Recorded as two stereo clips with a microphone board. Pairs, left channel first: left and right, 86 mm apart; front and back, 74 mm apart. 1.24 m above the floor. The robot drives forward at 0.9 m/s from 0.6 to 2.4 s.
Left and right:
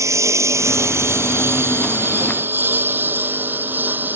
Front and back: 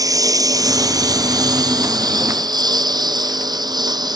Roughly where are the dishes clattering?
I don't hear dishes clattering.